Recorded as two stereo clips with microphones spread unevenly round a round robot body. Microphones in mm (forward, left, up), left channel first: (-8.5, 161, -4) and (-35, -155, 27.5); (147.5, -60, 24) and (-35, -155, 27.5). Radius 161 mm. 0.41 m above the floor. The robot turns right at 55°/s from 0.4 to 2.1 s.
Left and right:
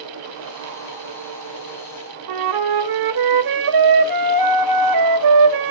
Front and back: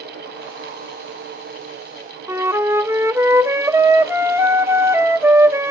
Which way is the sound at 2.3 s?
75° right.